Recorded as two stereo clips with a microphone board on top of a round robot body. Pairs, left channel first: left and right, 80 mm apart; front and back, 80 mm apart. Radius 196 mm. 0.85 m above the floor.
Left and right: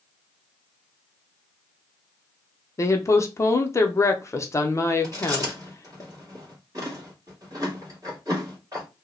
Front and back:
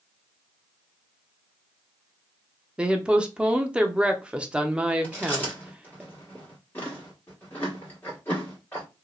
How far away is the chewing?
About 1.6 m.